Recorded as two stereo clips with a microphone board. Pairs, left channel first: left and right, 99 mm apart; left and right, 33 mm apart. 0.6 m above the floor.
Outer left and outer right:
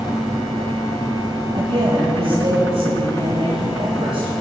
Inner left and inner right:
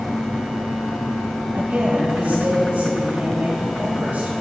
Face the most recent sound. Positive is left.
turn(degrees=-55)  # may be behind; listen again after turning